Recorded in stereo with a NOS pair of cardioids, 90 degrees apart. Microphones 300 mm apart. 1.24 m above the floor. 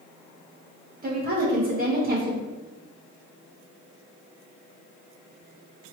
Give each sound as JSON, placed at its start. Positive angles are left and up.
{"t": 1.0, "sound": "a woman speaking", "azimuth_deg": -30, "distance_m": 1.2}